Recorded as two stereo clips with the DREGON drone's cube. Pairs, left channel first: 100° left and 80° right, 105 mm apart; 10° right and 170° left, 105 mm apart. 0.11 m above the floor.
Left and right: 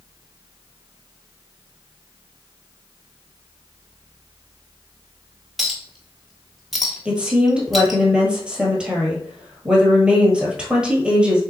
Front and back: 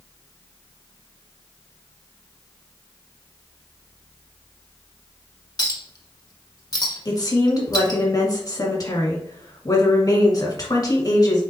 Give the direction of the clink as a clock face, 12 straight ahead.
12 o'clock.